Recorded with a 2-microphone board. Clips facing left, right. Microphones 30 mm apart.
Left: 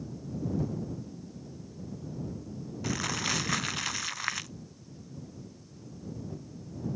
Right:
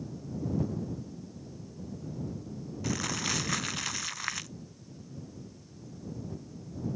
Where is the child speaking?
No child speaking in this recording.